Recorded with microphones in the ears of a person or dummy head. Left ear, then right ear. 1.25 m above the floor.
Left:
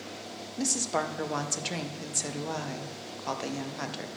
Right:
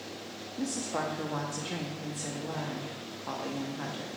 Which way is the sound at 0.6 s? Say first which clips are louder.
Left 4 dB; 70° left (ahead or behind).